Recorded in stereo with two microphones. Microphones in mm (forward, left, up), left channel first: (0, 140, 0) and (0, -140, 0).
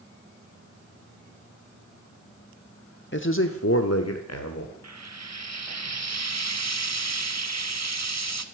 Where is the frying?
70° right (ahead or behind), 1.0 m.